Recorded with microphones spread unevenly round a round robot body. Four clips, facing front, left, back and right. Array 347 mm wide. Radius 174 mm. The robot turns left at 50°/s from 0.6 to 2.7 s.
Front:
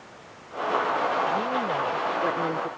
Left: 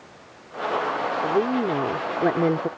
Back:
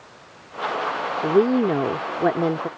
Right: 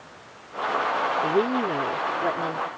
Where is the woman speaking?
175° right; by 2.7 s 115° left.